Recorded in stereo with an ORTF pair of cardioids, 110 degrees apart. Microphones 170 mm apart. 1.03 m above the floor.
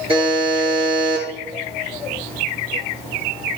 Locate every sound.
0.1 s a buzzer: 30° right, 8 m